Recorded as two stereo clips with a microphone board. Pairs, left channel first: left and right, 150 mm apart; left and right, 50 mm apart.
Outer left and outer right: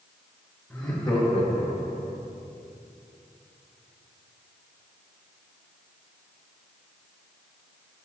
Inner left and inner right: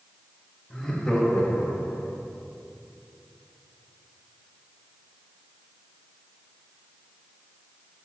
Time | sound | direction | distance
0.7 | laughter | 20° left (ahead or behind) | 1.6 m